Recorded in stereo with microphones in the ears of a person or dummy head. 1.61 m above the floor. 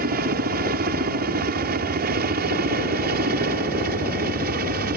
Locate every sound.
0.0 s a helicopter: 45° right (ahead or behind)